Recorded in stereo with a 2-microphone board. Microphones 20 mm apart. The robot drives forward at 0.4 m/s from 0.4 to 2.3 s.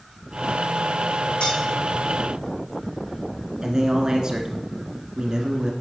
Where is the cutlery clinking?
75° left (ahead or behind), 4 m.